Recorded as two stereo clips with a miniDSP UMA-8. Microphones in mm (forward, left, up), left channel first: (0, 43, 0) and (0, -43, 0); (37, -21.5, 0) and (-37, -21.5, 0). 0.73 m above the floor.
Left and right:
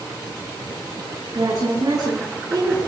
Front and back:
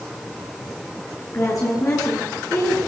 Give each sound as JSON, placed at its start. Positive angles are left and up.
{"t": 1.3, "sound": "a woman speaking", "azimuth_deg": -50, "distance_m": 8.5}